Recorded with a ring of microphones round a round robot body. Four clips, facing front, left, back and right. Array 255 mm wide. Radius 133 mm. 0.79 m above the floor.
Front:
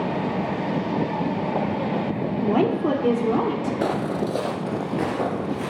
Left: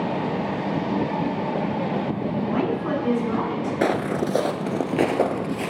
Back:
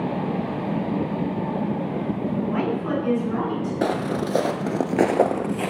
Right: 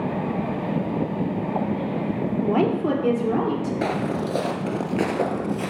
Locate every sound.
2.4 s a woman speaking: 45° right, 2.5 m; by 3.7 s 30° right, 3 m
3.8 s footsteps: 90° left, 0.8 m; by 5.7 s 165° left, 1.2 m